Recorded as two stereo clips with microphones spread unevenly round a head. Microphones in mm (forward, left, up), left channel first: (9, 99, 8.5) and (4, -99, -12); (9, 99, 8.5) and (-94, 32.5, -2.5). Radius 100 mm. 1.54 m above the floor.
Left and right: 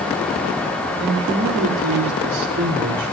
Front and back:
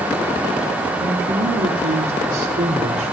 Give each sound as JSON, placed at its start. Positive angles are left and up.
{"t": 1.0, "sound": "a man speaking", "azimuth_deg": -100, "distance_m": 5.0}